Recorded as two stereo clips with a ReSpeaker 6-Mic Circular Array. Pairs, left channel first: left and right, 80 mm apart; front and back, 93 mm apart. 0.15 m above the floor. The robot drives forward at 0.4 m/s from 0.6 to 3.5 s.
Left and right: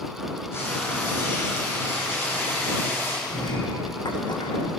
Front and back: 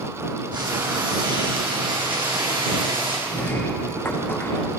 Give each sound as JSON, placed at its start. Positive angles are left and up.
{"t": 0.5, "sound": "frying", "azimuth_deg": 145, "distance_m": 8.0}
{"t": 3.3, "sound": "a sliding door", "azimuth_deg": 65, "distance_m": 3.5}